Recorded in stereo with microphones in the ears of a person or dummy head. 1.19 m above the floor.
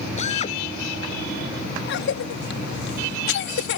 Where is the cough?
60° left (ahead or behind).